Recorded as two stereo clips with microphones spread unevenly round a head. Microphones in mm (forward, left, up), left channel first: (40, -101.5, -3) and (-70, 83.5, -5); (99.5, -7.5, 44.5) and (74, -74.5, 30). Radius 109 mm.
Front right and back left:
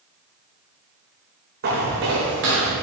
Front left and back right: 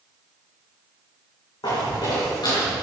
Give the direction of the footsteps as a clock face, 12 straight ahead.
10 o'clock.